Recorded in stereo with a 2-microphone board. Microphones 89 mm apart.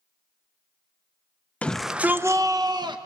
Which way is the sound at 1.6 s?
15° left (ahead or behind).